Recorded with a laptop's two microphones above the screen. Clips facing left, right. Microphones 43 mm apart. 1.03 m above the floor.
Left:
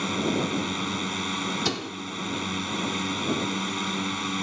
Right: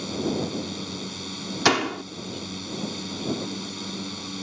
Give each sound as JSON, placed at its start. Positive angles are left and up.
{"t": 0.0, "sound": "a drone", "side_deg": 40}
{"t": 1.6, "sound": "a door slam", "side_deg": -85}